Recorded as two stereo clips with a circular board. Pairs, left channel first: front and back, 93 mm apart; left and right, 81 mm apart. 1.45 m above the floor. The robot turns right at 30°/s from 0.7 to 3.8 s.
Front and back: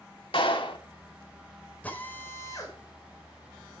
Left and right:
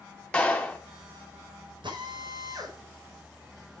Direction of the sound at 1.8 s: 75° right.